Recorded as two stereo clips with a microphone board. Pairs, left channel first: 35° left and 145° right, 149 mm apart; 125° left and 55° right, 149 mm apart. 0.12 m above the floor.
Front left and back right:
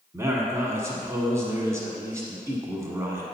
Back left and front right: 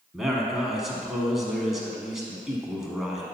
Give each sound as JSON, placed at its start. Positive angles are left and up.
{"t": 0.1, "sound": "a man speaking", "azimuth_deg": -140, "distance_m": 1.1}